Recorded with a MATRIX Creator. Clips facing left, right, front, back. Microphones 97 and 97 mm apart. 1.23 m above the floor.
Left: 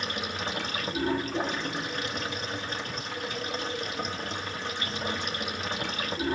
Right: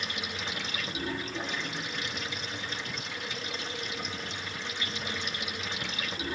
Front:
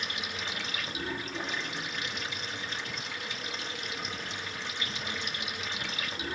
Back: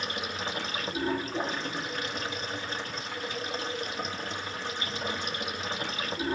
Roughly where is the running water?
Behind left.